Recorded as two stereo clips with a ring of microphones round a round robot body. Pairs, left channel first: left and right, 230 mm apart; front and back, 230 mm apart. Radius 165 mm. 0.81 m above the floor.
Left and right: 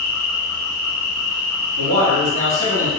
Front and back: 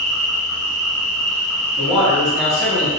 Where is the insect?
175° right, 2.0 m.